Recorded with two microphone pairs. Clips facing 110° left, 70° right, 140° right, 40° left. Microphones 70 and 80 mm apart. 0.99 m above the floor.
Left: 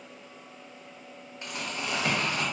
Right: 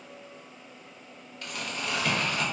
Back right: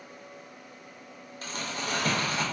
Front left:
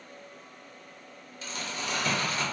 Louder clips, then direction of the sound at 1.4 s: Even, back right 1 dB; straight behind.